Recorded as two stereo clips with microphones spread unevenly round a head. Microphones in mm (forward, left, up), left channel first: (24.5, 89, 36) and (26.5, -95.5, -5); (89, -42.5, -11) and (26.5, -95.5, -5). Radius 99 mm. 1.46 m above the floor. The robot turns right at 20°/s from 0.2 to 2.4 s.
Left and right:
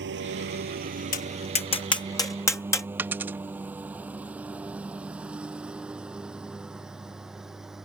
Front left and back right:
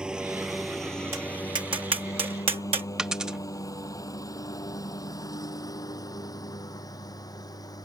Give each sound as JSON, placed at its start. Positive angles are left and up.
{"t": 0.0, "sound": "a lawn mower", "azimuth_deg": -60}
{"t": 1.1, "sound": "tapping", "azimuth_deg": 140}
{"t": 3.0, "sound": "a dropped coin", "azimuth_deg": 170}